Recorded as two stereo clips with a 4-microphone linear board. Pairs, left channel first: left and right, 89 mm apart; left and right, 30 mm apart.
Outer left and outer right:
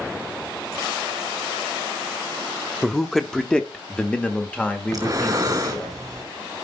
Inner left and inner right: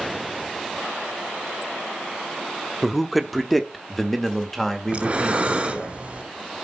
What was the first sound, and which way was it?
A man speaking, centre (ahead or behind).